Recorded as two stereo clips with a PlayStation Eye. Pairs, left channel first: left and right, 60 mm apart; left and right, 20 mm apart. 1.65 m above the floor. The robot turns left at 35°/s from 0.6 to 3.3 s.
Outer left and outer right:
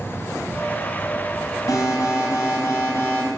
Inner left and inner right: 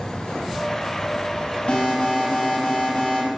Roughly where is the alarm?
Left.